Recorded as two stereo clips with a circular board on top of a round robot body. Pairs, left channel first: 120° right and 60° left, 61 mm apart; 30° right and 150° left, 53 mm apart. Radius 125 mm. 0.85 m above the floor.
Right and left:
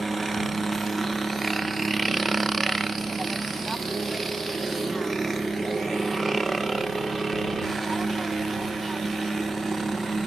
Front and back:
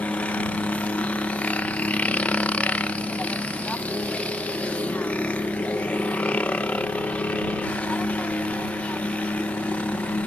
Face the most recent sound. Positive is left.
turn(degrees=-30)